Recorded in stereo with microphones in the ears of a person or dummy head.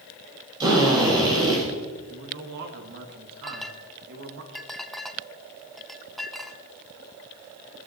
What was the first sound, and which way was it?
A drill, 25° right (ahead or behind).